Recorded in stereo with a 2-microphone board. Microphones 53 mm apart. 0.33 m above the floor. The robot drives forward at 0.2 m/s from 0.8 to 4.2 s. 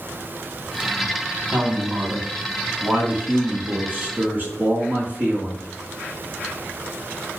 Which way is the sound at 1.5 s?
40° right (ahead or behind).